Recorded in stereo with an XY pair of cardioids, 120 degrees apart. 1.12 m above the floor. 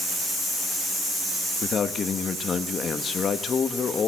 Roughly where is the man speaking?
Ahead left.